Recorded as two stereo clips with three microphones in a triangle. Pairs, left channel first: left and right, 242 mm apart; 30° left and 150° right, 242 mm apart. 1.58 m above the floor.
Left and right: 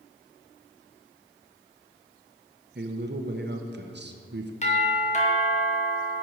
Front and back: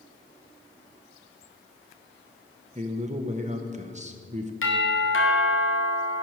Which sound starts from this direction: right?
A man speaking, at 2.8 s.